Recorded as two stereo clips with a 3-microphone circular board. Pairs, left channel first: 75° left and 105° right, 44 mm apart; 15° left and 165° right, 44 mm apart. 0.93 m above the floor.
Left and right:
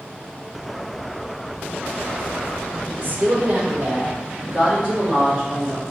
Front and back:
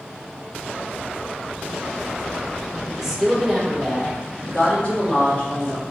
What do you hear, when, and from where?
2.9 s a woman speaking: 95° right, 1.0 m; by 5.8 s 35° right, 2.5 m